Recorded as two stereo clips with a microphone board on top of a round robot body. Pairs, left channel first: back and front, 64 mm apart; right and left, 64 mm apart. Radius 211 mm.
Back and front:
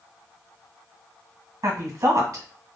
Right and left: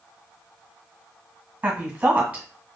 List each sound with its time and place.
1.6 s a woman speaking: 25° left, 1.5 m